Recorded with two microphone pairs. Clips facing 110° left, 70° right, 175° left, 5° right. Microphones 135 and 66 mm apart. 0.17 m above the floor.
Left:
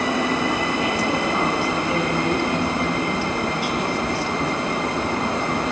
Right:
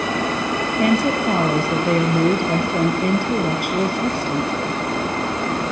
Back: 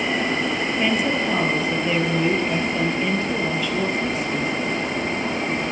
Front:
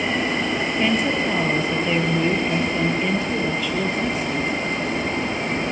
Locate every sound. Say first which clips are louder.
0.8 s a woman speaking: right 4 dB, even; 95° right, 4.5 m